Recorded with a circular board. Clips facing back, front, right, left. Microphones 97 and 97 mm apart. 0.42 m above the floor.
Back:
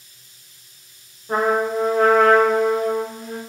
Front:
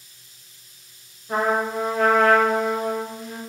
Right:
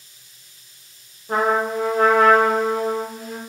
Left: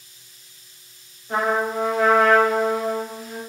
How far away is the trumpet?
About 0.8 m.